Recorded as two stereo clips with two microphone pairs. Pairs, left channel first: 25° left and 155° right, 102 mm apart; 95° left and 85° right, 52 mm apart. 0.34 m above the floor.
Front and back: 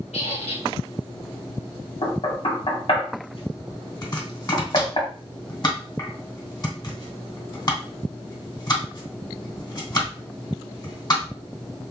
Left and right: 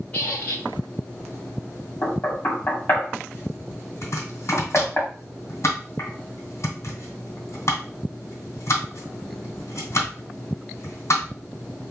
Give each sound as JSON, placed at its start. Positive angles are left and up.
{"t": 0.1, "sound": "a squeak", "azimuth_deg": 30, "distance_m": 1.3}
{"t": 2.0, "sound": "knocking", "azimuth_deg": 50, "distance_m": 2.0}
{"t": 4.0, "sound": "chopping", "azimuth_deg": 75, "distance_m": 2.5}